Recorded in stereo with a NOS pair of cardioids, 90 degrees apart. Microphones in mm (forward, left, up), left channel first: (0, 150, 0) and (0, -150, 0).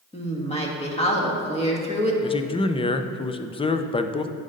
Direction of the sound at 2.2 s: 20° left.